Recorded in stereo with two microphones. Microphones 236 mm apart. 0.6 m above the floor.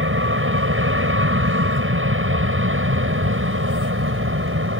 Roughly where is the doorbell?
I don't hear a doorbell.